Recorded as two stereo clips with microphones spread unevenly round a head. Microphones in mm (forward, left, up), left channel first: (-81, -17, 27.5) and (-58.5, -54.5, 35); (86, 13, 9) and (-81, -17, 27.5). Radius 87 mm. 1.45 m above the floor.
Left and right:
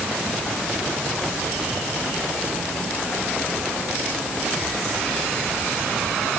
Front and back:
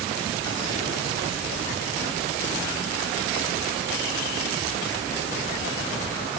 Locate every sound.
Only background noise.